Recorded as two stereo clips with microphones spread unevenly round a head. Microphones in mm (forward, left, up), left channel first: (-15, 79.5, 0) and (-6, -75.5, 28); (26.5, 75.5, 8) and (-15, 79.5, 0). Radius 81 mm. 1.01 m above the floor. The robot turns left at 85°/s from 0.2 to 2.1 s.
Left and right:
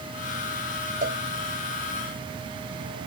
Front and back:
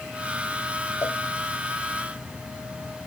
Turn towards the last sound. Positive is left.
turn(degrees=-135)